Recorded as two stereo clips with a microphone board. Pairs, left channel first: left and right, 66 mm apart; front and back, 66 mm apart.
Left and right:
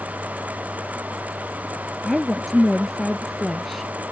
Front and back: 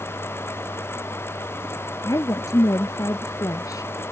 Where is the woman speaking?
Straight ahead.